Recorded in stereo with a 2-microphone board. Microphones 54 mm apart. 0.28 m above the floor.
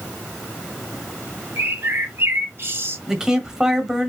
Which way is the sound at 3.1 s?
10° right (ahead or behind).